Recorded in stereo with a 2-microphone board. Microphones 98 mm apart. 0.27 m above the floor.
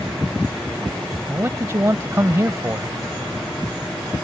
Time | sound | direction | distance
1.3 | a man speaking | 25° right (ahead or behind) | ?